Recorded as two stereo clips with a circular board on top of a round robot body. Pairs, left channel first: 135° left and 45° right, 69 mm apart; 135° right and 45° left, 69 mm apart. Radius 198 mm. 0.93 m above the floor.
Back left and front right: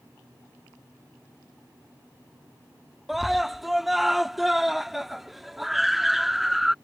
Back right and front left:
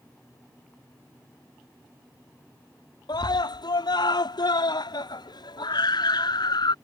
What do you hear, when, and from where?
3.1 s a scream: 130° right